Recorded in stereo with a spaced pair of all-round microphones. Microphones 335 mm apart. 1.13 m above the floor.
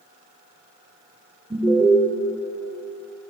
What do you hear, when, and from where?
1.5 s an alarm: 5° right (ahead or behind), 3 m